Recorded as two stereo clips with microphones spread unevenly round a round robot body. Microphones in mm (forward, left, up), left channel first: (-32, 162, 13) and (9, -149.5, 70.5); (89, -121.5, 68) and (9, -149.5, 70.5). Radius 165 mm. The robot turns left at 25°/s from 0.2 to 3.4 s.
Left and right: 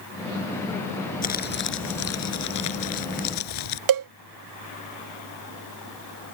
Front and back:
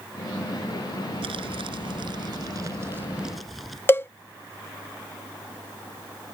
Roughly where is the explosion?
I don't hear an explosion.